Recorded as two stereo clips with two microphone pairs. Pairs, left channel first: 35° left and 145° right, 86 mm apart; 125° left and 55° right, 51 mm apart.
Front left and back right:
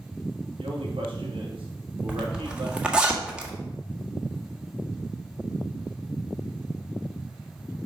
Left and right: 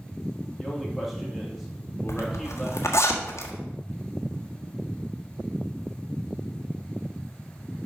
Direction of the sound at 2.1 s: 135° left.